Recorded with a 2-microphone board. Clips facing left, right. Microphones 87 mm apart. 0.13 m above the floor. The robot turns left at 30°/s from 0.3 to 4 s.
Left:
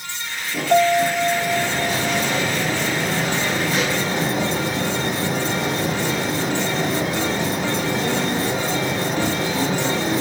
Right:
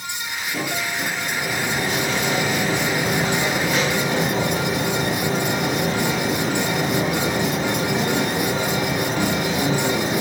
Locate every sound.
0.7 s a piano: 115° left; by 2.3 s 65° left